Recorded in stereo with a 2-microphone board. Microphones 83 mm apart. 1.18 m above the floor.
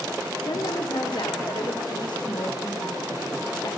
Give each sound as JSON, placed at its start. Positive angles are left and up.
{"t": 0.5, "sound": "a woman speaking", "side_deg": 65, "distance_m": 4.0}